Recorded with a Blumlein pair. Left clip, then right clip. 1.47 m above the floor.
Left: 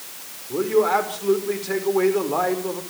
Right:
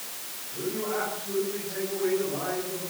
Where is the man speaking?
40° left, 5.5 m.